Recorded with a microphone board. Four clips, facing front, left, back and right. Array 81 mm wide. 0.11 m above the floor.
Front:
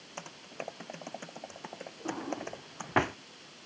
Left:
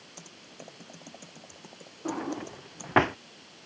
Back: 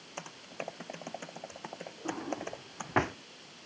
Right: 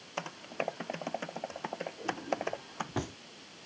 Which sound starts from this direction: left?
A drawer, at 2.0 s.